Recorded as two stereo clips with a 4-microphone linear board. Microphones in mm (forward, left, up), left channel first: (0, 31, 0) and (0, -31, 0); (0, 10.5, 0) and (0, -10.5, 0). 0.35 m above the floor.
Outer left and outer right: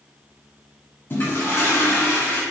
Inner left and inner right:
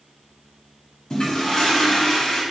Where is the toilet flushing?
35° left (ahead or behind), 1.3 m.